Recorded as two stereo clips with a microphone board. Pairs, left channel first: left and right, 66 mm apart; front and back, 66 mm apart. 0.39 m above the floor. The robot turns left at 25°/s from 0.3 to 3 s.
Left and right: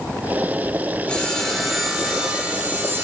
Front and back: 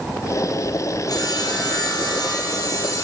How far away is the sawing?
About 4 m.